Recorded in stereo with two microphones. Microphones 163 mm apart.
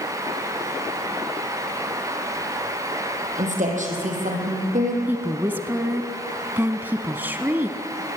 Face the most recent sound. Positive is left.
turn(degrees=-10)  # may be behind; listen again after turning